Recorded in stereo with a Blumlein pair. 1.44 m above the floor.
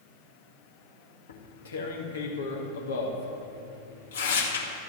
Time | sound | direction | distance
1.3 | tearing paper | 65° left | 2 m